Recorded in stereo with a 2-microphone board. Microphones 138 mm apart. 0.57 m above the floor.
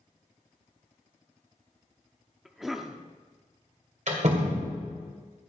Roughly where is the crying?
No crying in this recording.